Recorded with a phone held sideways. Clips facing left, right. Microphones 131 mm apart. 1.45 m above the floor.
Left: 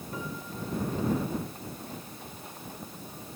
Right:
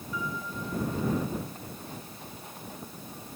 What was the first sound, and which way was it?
A piano, 55° left (ahead or behind).